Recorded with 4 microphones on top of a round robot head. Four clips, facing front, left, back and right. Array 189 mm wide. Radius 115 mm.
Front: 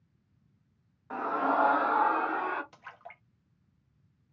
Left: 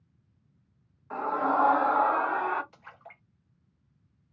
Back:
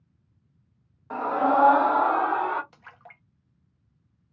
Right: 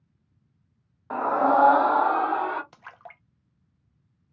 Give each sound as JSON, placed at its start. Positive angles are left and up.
{"t": 1.1, "sound": "a scream", "azimuth_deg": -100, "distance_m": 0.6}
{"t": 2.7, "sound": "a splash", "azimuth_deg": -90, "distance_m": 0.9}